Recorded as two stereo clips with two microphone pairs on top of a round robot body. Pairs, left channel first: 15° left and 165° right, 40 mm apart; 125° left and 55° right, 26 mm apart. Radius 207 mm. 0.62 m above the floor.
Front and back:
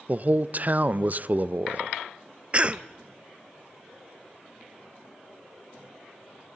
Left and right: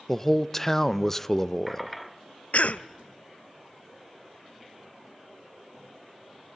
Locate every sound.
0.1 s a man speaking: 160° right, 0.8 m
2.5 s a cough: 125° left, 0.9 m